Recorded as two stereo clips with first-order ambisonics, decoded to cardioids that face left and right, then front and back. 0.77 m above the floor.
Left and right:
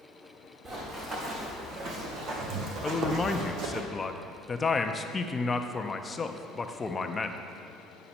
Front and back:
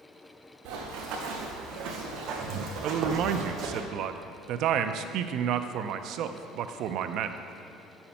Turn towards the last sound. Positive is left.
turn(degrees=160)